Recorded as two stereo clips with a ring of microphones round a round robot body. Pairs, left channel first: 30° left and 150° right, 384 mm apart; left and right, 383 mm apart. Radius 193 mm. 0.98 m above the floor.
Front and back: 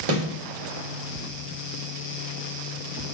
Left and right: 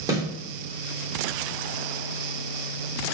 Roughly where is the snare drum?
Behind.